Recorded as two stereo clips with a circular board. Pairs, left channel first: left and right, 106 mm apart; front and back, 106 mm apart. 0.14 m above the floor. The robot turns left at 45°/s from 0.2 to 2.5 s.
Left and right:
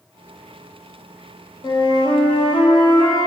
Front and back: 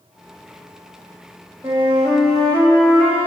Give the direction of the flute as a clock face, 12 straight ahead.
8 o'clock.